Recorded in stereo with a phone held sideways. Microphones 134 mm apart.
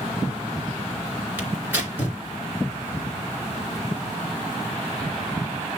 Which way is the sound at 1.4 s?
15° right (ahead or behind).